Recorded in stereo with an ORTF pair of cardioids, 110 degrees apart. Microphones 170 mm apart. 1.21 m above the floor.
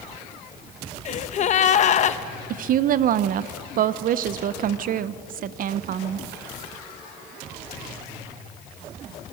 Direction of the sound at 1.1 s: 45° left.